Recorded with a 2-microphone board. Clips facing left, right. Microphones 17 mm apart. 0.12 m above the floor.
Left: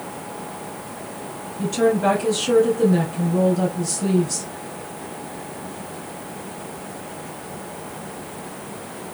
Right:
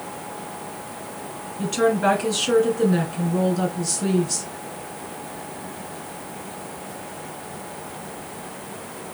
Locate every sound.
1.6 s a woman speaking: 20° right (ahead or behind), 1.7 m